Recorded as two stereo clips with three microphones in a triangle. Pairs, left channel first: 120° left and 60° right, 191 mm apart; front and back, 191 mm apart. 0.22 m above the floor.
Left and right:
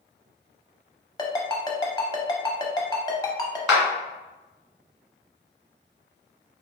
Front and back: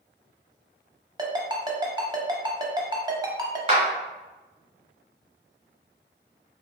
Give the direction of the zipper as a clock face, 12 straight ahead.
No zipper in this recording.